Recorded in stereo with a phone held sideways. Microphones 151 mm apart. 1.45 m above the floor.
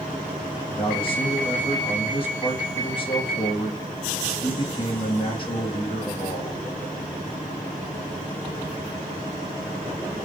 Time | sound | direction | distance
0.7 | a man speaking | 35° left (ahead or behind) | 3 m